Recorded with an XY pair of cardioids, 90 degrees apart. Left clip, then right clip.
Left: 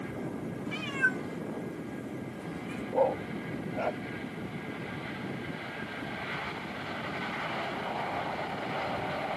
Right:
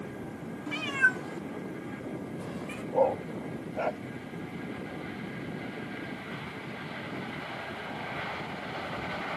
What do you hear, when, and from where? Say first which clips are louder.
0.7 s a cat meowing: right 4 dB; 35° right; by 2.8 s 45° right
2.9 s a dog barking: right 1 dB; 20° right